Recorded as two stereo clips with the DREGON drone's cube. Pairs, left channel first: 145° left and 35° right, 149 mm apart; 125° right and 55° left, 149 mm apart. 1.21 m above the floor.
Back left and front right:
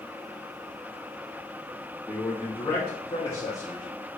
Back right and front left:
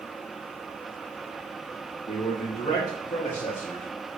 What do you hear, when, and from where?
2.1 s a man speaking: 140° right, 2 m; by 3.9 s 175° right, 1.9 m